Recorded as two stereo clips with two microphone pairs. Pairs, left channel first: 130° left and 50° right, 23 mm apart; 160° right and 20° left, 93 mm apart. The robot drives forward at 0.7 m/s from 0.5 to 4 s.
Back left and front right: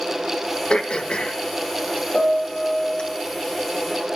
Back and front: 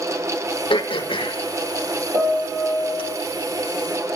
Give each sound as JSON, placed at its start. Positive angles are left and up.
{"t": 0.7, "sound": "throat clearing", "azimuth_deg": 180, "distance_m": 1.0}
{"t": 2.1, "sound": "a piano", "azimuth_deg": 70, "distance_m": 6.5}